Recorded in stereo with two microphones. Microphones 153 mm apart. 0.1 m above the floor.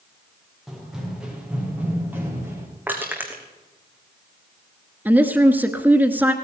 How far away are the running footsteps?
About 5.5 m.